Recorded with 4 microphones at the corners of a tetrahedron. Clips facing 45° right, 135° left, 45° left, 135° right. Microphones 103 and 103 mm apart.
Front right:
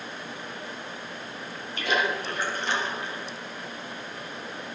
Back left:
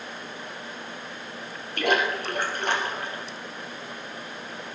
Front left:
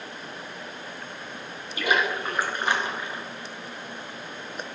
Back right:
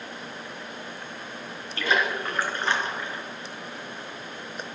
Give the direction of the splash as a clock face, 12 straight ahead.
8 o'clock.